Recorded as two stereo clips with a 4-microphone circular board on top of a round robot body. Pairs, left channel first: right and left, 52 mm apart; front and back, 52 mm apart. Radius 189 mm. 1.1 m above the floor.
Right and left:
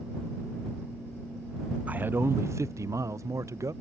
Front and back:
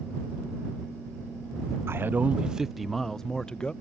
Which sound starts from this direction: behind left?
A man speaking, at 1.9 s.